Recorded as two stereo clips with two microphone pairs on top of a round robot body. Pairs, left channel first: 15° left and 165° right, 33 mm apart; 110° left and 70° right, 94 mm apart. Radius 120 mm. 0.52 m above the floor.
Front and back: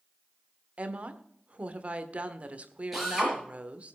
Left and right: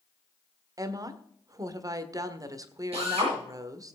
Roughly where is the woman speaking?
Behind right.